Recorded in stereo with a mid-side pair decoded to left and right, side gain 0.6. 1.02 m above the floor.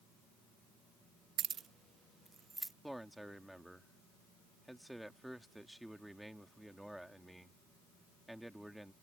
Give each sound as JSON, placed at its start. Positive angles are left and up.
{"t": 1.4, "sound": "keys jangling", "azimuth_deg": -50}
{"t": 2.8, "sound": "a man speaking", "azimuth_deg": 0}